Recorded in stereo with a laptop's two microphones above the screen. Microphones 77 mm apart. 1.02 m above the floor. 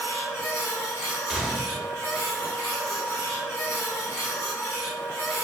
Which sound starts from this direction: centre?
A gunshot, at 1.3 s.